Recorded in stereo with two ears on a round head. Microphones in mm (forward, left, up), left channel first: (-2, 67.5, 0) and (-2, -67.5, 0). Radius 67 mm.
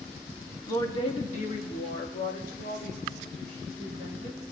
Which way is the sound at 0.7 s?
20° left (ahead or behind).